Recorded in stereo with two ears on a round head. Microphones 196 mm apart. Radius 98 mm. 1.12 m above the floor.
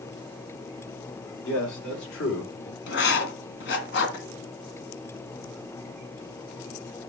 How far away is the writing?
About 1.9 m.